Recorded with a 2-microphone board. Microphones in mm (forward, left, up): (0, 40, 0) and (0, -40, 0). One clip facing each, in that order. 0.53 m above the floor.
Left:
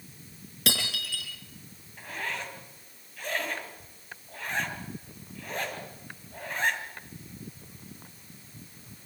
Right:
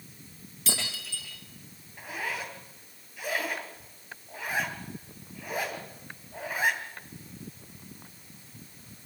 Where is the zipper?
10° right (ahead or behind), 3 m.